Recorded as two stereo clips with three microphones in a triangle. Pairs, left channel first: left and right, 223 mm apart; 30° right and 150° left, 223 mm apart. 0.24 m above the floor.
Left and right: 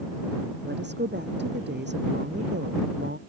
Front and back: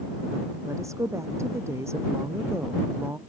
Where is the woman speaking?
130° right.